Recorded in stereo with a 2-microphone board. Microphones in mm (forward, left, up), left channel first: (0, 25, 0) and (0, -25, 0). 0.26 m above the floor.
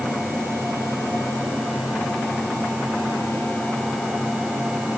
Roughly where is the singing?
No singing in this recording.